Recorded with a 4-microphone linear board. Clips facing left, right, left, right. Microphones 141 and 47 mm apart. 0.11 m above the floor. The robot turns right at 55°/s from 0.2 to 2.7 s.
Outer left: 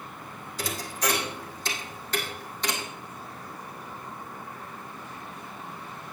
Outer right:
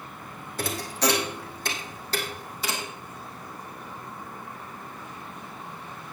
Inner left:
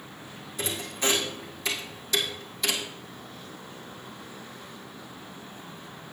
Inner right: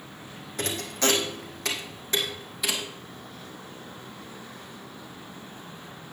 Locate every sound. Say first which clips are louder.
0.6 s a thud: outer right 4 dB, inner right 2 dB; 55° right (ahead or behind), 2.5 m; by 2.9 s 5° right (ahead or behind), 2.5 m